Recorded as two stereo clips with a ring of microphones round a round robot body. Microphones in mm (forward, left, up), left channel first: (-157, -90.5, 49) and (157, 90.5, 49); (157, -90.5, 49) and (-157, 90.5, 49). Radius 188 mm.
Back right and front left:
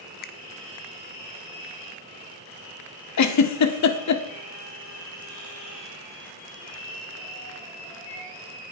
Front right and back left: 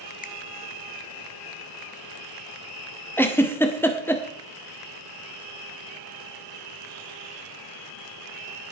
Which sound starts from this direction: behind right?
A giggle, at 3.2 s.